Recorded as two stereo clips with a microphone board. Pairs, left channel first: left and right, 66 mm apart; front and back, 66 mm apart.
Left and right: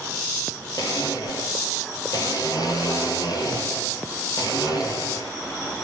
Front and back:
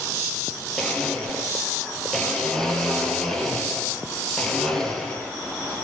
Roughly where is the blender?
Left.